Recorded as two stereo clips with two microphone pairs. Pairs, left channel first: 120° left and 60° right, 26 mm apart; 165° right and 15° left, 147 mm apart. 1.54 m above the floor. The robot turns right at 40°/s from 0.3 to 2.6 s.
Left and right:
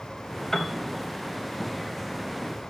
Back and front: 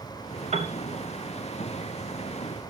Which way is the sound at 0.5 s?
50° left.